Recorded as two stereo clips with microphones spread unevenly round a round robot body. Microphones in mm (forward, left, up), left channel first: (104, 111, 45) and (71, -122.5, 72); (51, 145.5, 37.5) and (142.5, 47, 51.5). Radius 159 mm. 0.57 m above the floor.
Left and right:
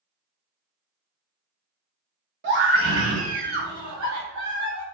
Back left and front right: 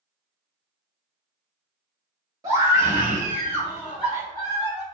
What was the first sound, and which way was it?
A scream, 110° right.